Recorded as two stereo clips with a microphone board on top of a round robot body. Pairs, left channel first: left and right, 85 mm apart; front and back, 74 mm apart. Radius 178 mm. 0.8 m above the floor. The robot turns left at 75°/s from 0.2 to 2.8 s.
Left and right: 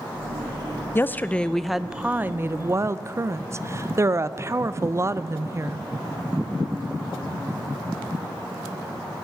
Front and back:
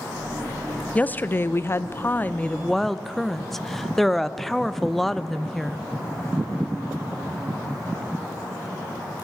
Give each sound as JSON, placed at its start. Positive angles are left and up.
{"t": 0.9, "sound": "a woman speaking", "azimuth_deg": 55, "distance_m": 0.6}